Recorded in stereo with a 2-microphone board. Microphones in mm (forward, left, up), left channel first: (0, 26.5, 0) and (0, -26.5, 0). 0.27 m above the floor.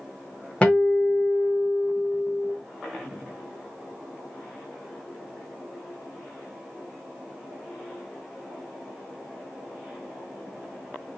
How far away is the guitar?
About 1.1 m.